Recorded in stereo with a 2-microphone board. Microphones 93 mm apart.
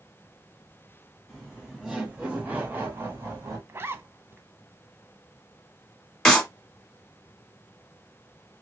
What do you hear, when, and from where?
1.3 s laughter: centre (ahead or behind), 1.7 m; by 3.6 s 30° right (ahead or behind), 1.2 m
3.7 s a zipper: 25° right (ahead or behind), 0.5 m
6.2 s a clap: 5° left (ahead or behind), 1.4 m